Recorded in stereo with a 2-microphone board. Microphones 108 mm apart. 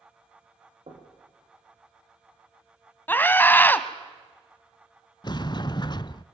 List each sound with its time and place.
0.9 s knocking: 65° right (ahead or behind), 6.5 m
3.1 s a scream: 20° left (ahead or behind), 1.2 m
5.2 s a sliding door: 45° left (ahead or behind), 0.5 m